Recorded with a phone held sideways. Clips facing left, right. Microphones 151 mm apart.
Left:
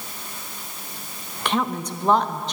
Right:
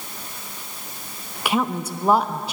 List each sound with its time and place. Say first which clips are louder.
1.4 s a woman speaking: right 1 dB; 10° right (ahead or behind), 0.6 m